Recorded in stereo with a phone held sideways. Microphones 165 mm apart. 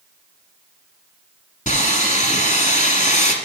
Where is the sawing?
50° left (ahead or behind), 1.3 m.